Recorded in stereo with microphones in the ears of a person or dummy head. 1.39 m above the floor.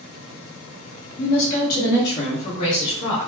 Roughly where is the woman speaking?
Left.